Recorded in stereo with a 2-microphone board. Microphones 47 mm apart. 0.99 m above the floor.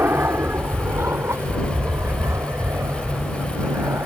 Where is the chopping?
I don't hear chopping.